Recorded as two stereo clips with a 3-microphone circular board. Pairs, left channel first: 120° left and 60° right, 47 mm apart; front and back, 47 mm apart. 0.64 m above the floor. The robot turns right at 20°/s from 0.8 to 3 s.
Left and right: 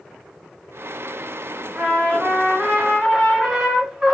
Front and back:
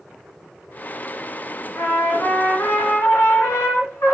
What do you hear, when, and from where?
1.8 s a trumpet: 5° right, 1.2 m; by 4.1 s 20° left, 1.2 m